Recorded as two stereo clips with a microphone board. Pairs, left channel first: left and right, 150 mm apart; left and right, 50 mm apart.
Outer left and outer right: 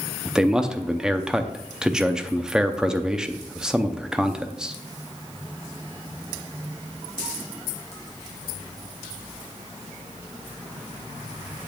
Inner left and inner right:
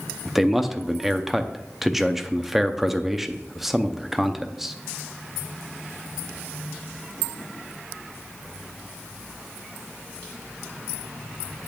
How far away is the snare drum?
No snare drum in this recording.